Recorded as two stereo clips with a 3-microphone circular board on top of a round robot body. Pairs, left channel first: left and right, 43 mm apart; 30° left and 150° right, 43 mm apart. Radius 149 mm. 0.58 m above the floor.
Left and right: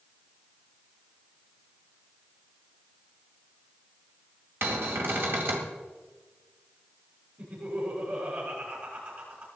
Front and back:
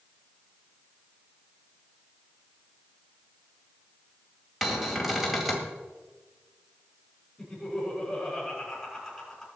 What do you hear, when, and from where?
4.6 s a cupboard door: 60° right, 2 m
7.4 s laughter: 60° right, 7 m